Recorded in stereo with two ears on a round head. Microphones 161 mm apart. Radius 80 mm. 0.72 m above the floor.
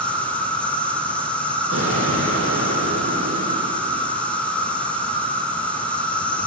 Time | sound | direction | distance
0.0 | an insect | 5° left (ahead or behind) | 3 m
1.7 | an explosion | 80° right | 8 m